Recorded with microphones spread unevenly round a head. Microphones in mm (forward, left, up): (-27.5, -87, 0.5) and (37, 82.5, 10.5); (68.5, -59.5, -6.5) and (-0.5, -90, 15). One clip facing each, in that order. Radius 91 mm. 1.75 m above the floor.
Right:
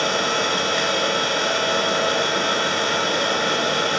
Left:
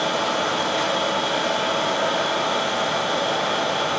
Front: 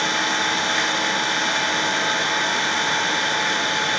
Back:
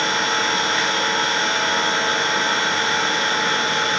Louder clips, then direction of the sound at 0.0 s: Even, back 1 dB; 125° right.